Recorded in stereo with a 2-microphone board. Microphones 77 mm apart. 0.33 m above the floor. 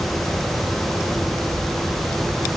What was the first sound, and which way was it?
Only background noise.